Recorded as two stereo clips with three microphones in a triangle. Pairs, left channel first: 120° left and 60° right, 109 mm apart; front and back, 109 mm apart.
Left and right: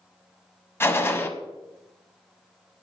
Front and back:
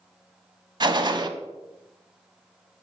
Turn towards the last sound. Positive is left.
turn(degrees=180)